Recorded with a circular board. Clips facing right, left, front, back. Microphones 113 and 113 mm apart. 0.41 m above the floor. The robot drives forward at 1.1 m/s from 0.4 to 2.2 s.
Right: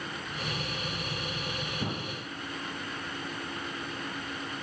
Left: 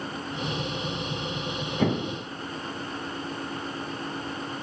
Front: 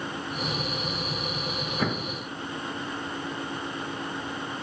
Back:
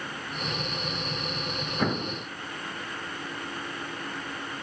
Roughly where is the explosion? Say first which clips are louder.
Left 10 dB, back 2 dB; left.